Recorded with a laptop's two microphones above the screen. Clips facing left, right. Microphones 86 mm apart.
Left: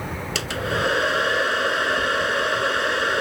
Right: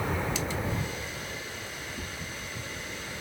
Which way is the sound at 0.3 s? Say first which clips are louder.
Left 7 dB; 80° left.